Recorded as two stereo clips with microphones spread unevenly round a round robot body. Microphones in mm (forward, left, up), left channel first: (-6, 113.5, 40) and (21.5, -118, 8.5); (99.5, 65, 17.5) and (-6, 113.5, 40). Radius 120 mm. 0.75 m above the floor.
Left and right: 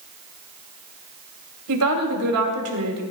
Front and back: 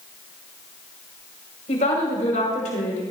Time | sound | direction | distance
1.7 | a woman speaking | 70° right | 4.5 m